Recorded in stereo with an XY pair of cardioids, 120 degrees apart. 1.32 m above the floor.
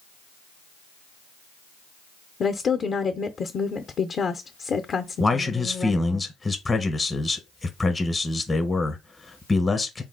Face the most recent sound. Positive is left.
turn(degrees=15)